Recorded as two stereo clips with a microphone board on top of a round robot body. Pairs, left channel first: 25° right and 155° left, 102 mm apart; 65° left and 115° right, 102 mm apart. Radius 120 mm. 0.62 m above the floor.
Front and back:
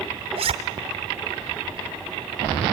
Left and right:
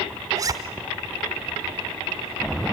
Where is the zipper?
170° right, 0.8 m.